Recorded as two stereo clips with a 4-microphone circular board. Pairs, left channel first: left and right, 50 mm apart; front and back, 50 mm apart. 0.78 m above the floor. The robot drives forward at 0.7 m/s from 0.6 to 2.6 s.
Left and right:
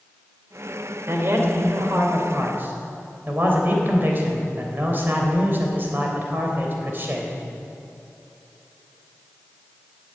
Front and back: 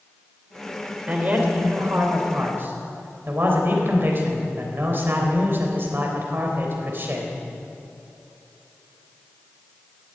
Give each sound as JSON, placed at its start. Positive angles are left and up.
{"t": 1.1, "sound": "a man speaking", "azimuth_deg": -120, "distance_m": 3.0}